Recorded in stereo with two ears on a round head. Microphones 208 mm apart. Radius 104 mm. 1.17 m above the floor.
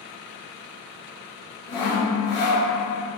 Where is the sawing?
20° left (ahead or behind), 1.1 m.